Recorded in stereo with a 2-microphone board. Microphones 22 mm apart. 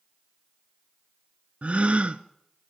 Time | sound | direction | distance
1.6 | a gasp | 70° right (ahead or behind) | 0.9 m